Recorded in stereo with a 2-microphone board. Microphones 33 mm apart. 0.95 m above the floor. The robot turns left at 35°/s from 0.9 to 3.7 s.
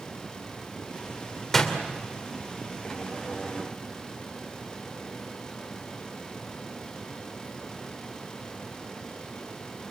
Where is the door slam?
10° left (ahead or behind), 2.5 m; by 1.8 s 15° left (ahead or behind), 2.5 m.